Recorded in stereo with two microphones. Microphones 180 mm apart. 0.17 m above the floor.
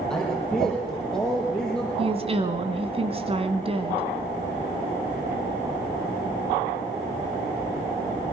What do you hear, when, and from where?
0.1 s a man speaking: 5° left (ahead or behind), 5.5 m
2.0 s a woman speaking: 35° right (ahead or behind), 1.7 m